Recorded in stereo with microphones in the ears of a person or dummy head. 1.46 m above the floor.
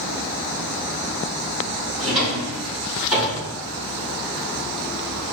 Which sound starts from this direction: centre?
A drawer, at 2.0 s.